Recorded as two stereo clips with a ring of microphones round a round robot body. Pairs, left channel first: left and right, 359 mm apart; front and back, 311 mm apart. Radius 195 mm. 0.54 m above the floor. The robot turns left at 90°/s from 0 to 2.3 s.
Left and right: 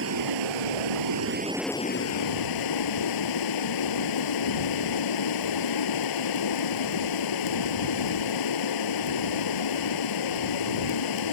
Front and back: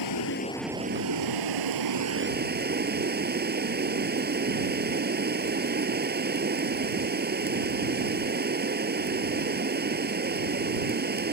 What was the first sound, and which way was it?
Running water, 30° right.